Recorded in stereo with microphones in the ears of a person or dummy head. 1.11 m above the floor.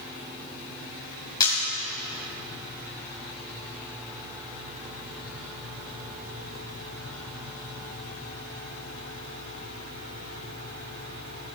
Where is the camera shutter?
20° left (ahead or behind), 3.5 m.